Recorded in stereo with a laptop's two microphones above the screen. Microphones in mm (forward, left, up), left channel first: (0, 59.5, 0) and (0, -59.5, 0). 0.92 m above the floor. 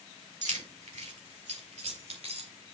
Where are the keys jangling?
80° right, 1.8 m; by 2.5 s 65° right (ahead or behind), 2.5 m.